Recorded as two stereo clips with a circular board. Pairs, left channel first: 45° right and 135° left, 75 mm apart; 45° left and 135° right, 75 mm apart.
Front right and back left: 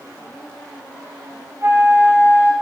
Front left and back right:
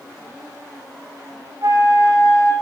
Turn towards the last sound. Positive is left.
turn(degrees=-170)